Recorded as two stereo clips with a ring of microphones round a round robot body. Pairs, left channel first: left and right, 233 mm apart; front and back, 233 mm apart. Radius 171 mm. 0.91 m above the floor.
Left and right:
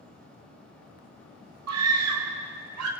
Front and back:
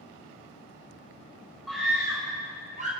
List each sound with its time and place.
1.7 s a scream: 90° right, 4 m; by 2.9 s 115° right, 3.5 m